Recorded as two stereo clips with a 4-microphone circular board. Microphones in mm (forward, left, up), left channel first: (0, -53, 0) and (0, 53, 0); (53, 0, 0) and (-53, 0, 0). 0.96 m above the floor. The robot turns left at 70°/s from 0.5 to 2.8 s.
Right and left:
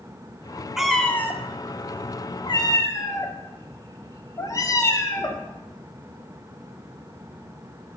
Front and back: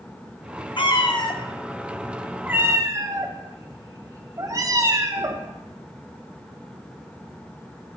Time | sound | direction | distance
0.8 | a cat meowing | 5° left | 0.6 m